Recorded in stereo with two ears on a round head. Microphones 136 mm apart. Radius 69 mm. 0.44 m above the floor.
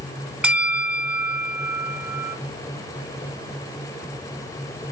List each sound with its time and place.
0.4 s a bell: 5° right (ahead or behind), 0.6 m